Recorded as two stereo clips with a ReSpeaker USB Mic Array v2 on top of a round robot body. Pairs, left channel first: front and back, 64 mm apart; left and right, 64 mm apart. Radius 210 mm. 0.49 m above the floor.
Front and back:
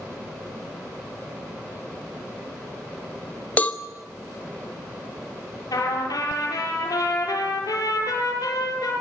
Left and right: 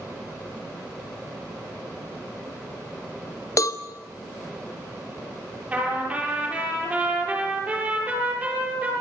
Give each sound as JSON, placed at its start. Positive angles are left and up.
{"t": 3.6, "sound": "a cowbell", "azimuth_deg": 65, "distance_m": 2.5}
{"t": 5.7, "sound": "a trumpet", "azimuth_deg": -20, "distance_m": 9.0}